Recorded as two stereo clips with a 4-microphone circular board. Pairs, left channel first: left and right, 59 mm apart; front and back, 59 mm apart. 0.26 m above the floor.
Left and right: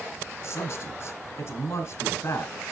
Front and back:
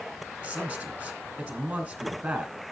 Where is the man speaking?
110° left, 2.5 m.